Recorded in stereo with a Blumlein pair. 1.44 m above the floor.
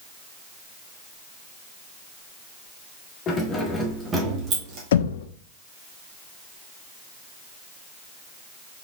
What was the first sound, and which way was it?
Keys jangling, 25° left.